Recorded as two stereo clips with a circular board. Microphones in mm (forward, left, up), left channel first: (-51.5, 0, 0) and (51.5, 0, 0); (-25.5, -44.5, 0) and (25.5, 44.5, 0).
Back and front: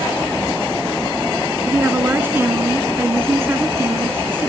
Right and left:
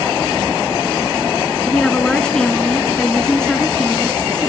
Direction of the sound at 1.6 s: 45° right.